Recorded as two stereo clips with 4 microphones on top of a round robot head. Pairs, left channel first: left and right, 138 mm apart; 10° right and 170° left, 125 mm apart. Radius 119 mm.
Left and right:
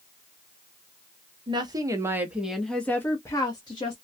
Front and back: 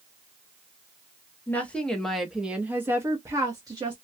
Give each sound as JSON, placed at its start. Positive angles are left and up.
{"t": 1.5, "sound": "a woman speaking", "azimuth_deg": -75, "distance_m": 1.0}